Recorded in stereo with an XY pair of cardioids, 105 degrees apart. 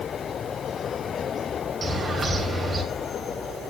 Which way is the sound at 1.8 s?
30° right.